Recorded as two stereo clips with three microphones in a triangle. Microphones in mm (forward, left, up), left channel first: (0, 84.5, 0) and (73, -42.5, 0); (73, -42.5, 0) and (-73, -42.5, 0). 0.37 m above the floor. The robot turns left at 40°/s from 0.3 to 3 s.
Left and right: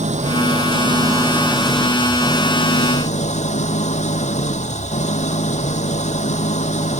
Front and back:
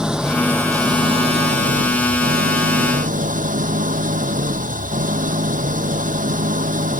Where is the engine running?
95° right; by 7.0 s 155° left.